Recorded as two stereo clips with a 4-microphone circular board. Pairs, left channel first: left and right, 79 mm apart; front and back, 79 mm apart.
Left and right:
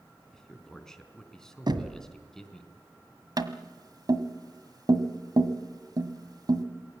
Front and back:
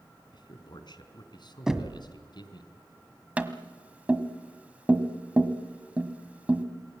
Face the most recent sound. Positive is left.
turn(degrees=-110)